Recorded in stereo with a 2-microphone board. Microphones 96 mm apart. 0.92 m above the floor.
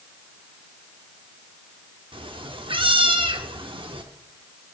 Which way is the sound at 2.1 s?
65° right (ahead or behind).